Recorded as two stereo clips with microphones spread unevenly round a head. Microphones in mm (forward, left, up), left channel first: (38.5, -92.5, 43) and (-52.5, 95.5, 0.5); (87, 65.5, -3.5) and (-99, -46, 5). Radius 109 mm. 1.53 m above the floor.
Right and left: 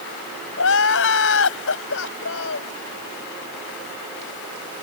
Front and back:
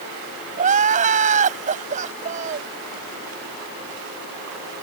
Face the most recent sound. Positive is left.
turn(degrees=-90)